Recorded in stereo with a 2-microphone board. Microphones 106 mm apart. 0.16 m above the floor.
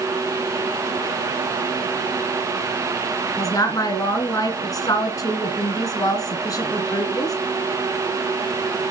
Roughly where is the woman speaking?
Left.